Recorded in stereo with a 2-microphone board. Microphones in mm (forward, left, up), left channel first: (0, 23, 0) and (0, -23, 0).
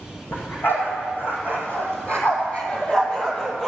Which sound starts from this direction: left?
A dog barking, at 0.3 s.